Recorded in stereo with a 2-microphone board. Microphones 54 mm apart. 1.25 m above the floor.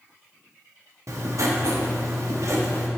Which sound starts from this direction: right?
Writing, at 1.1 s.